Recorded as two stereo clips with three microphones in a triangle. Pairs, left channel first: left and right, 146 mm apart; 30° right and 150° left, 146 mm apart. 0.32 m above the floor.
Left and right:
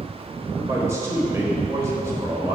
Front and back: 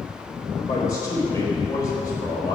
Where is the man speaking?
55° right, 1.2 m.